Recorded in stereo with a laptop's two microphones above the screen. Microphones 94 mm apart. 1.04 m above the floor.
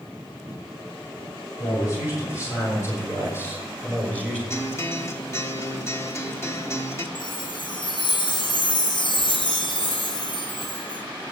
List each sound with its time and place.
1.6 s a man speaking: 35° left (ahead or behind), 7 m; by 4.4 s 10° left (ahead or behind), 3 m
4.5 s a guitar: 30° left (ahead or behind), 1.0 m
7.2 s a chime: 60° left (ahead or behind), 2.0 m